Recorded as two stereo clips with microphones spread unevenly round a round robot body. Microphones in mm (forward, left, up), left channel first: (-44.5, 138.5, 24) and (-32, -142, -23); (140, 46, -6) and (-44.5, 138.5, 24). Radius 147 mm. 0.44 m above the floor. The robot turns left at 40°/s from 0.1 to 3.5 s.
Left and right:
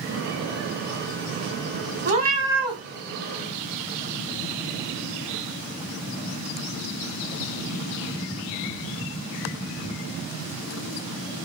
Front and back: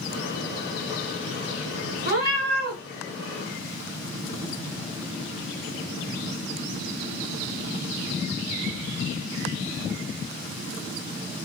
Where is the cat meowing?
150° right, 1.4 m; by 2.8 s 175° right, 1.4 m.